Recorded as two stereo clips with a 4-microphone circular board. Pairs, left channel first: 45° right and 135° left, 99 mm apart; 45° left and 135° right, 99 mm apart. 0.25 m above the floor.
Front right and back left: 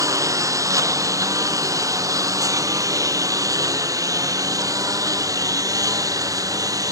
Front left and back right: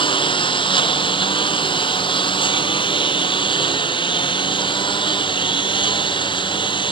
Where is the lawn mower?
80° left.